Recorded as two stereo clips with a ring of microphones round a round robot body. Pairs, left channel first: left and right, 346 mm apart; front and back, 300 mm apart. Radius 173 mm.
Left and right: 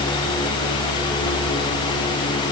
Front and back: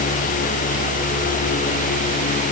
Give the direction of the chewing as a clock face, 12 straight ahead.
No chewing in this recording.